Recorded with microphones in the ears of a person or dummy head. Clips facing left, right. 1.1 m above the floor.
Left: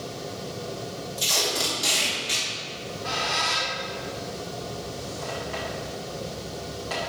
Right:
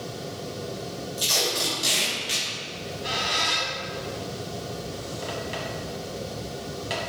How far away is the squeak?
About 1.3 m.